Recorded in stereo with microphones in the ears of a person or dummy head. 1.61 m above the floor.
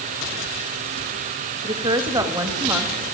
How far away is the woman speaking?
About 2 m.